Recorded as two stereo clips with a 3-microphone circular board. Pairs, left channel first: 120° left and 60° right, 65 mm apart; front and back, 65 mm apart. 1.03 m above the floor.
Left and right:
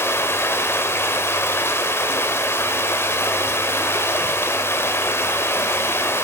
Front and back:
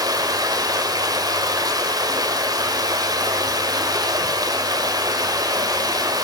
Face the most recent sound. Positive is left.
turn(degrees=175)